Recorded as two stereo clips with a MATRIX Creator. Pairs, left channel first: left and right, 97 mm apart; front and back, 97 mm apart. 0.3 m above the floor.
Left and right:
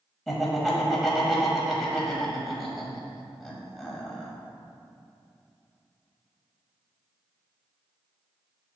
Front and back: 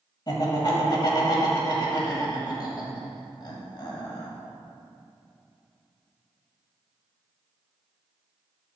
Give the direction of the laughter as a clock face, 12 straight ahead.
12 o'clock.